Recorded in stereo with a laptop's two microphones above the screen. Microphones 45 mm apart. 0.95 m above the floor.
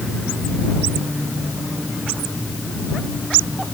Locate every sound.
Only background noise.